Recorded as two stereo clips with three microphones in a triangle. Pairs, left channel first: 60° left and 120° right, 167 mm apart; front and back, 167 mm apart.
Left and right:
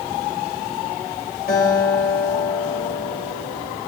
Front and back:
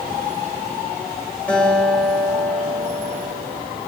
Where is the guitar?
80° left, 2.0 m.